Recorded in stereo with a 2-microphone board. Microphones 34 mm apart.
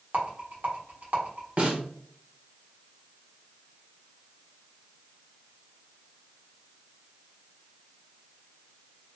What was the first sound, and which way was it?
A rattle, 60° right (ahead or behind).